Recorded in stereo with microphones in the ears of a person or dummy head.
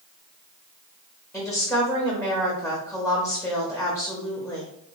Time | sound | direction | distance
1.3 | a woman speaking | 5° right (ahead or behind) | 0.8 m